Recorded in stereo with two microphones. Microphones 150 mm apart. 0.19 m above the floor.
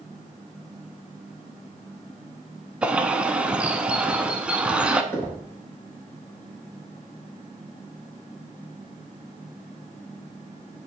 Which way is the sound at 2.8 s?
10° right (ahead or behind).